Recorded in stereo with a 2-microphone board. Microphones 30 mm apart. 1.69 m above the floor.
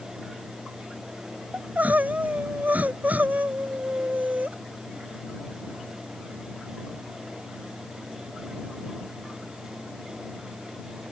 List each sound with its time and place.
1.5 s crying: 60° right (ahead or behind)